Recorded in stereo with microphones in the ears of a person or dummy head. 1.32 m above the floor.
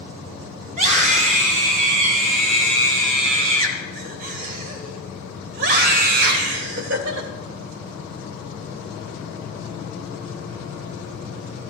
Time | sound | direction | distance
0.7 | a scream | 45° right (ahead or behind) | 6.5 m